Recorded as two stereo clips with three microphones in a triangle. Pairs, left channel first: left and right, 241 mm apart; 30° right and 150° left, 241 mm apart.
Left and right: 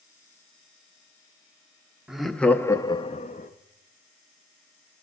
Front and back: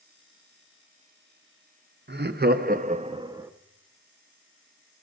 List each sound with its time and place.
2.1 s laughter: 175° right, 0.8 m; by 3.5 s 80° left, 0.6 m